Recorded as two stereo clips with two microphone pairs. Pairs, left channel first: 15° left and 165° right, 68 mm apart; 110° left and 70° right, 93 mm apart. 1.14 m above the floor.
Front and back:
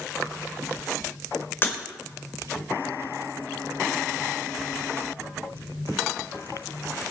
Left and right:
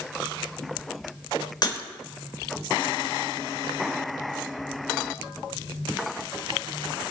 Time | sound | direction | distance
1.6 | breaking glass | 70° left | 3 m